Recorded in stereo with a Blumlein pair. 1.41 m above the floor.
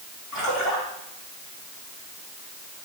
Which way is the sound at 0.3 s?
25° left.